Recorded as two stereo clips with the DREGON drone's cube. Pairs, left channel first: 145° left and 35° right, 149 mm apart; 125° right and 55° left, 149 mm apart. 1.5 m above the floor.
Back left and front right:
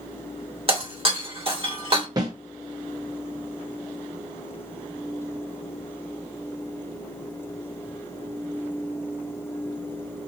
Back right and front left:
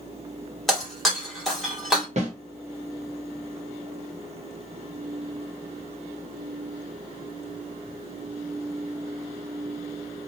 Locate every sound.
0.7 s breaking glass: 35° right, 1.2 m
2.2 s a snare drum: 25° left, 0.9 m